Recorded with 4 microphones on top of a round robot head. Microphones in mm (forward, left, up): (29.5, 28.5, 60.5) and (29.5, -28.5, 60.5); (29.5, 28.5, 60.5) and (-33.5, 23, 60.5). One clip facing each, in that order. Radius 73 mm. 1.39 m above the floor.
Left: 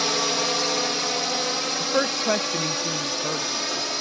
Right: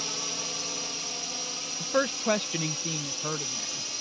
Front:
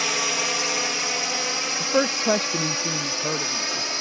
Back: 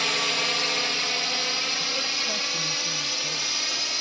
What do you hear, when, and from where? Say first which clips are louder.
0.0 s a drone: left 13 dB, front 1 dB; 85° left; by 4.0 s 70° left
1.8 s a woman speaking: left 2 dB, front 9 dB; 10° left